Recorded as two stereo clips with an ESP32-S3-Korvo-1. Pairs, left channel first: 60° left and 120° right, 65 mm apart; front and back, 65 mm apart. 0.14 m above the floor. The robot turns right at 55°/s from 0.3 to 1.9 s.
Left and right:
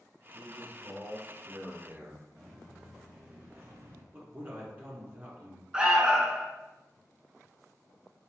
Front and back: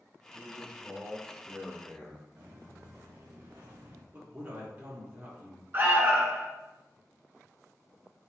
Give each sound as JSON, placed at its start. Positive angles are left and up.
{"t": 0.3, "sound": "a man speaking", "azimuth_deg": -165, "distance_m": 1.5}
{"t": 2.4, "sound": "footsteps", "azimuth_deg": 150, "distance_m": 2.0}
{"t": 4.1, "sound": "a man speaking", "azimuth_deg": -160, "distance_m": 1.6}
{"t": 5.7, "sound": "an alarm", "azimuth_deg": 170, "distance_m": 0.9}